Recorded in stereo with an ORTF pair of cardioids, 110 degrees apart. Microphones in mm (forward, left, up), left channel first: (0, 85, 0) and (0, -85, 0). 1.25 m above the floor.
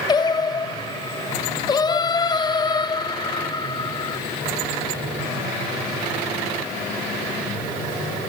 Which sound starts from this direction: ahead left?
Singing, at 0.1 s.